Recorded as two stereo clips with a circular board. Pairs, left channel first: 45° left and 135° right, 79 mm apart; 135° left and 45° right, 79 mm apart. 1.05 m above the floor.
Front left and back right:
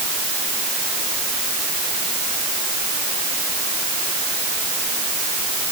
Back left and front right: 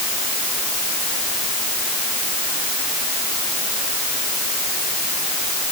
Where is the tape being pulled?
No tape being pulled in this recording.